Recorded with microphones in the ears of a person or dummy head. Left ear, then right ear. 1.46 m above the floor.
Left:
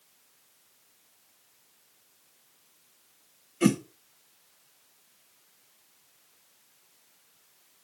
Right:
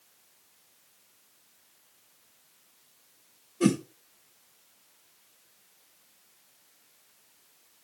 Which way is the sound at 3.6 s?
20° left (ahead or behind).